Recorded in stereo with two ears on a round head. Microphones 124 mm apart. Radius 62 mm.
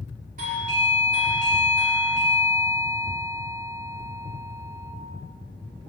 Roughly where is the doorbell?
Right.